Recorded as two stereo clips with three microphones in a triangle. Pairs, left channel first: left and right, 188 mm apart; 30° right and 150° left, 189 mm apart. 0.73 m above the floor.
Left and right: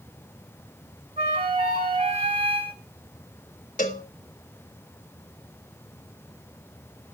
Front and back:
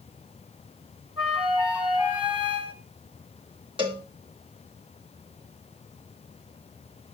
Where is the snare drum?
No snare drum in this recording.